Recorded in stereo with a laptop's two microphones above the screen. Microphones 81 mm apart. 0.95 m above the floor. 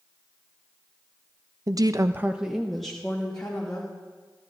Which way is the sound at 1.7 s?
45° right (ahead or behind).